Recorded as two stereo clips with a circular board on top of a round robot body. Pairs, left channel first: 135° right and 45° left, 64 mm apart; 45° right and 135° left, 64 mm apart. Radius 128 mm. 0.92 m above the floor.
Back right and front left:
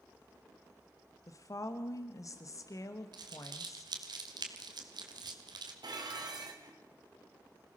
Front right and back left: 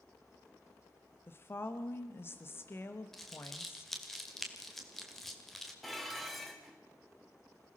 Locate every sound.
1.3 s a woman speaking: 100° right, 1.1 m
3.1 s crumpling: 40° left, 1.9 m
5.8 s dishes clattering: 40° left, 2.5 m